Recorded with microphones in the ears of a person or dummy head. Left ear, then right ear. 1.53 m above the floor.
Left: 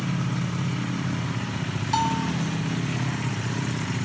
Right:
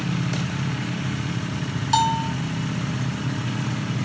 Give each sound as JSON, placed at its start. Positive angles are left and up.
{"t": 1.9, "sound": "a bell", "side_deg": -10}